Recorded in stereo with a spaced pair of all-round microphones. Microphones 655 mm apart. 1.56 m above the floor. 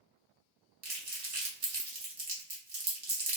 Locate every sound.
0.8 s crumpling: 55° right (ahead or behind), 0.9 m